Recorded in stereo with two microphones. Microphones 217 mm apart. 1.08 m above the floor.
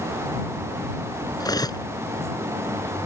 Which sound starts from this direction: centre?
Cutlery clinking, at 1.4 s.